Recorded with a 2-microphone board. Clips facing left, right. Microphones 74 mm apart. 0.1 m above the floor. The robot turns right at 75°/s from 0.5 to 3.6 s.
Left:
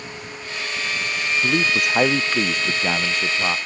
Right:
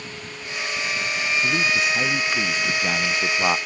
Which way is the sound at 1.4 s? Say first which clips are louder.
Left 3 dB; 45° left.